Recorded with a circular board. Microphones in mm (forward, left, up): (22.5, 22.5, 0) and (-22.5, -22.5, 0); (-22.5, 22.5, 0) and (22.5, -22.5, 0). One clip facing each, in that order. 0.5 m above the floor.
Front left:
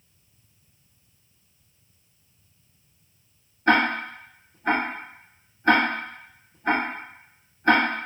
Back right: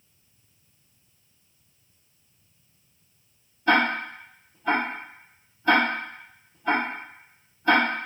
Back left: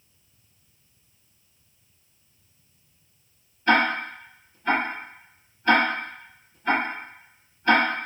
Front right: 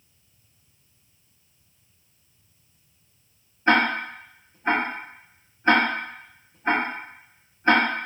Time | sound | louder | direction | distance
3.7 | ticking | front left 1 dB, even | 15° left | 1.1 m